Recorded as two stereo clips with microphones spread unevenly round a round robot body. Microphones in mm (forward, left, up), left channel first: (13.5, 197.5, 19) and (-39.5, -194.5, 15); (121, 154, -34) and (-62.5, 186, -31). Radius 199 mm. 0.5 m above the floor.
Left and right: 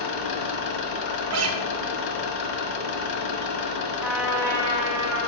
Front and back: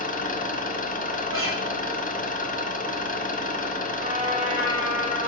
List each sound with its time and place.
0.0 s an engine running: 45° left, 0.7 m
1.3 s a guitar: 155° right, 0.5 m
4.0 s a trumpet: 175° right, 0.7 m